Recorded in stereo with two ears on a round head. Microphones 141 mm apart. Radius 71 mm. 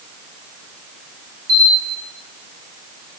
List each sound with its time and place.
1.5 s a camera shutter: 60° right (ahead or behind), 2 m